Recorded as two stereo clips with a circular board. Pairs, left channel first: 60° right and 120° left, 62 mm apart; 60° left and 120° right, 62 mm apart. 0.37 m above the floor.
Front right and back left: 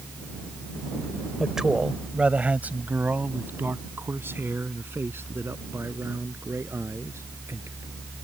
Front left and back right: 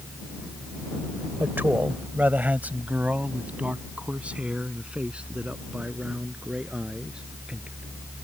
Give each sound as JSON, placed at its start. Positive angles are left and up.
{"t": 1.4, "sound": "a man speaking", "azimuth_deg": -155}